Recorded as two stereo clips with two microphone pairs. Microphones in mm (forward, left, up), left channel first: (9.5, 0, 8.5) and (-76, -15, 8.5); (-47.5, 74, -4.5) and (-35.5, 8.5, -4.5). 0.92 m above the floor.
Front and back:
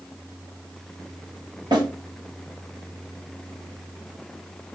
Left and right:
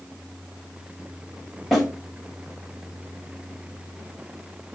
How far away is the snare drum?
About 1.3 m.